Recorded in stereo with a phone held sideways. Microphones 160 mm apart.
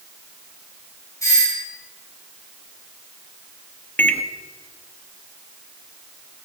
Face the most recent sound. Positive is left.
turn(degrees=10)  # may be behind; listen again after turning